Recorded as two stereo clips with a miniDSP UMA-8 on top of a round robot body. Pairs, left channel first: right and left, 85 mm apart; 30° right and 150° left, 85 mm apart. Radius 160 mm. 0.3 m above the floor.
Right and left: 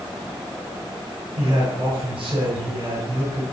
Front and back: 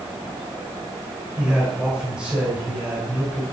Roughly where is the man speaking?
Left.